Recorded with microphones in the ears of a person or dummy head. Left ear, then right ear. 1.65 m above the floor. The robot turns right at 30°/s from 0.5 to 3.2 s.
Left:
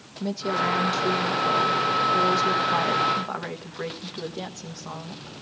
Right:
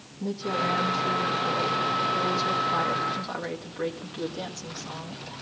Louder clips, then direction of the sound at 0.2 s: Left 2 dB; 75° left.